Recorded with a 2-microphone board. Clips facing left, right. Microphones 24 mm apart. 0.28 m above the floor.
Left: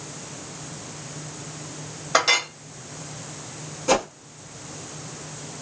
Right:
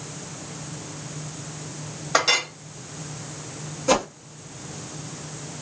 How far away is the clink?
About 0.6 m.